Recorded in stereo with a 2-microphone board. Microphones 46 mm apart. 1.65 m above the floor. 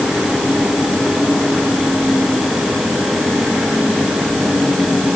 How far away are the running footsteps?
I don't hear running footsteps.